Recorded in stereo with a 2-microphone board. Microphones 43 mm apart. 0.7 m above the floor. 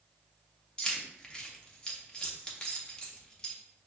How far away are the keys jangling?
About 0.7 m.